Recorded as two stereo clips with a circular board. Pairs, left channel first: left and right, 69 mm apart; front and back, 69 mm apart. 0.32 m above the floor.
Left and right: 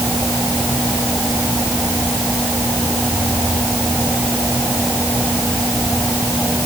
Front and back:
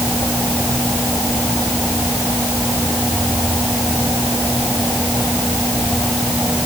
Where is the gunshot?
I don't hear a gunshot.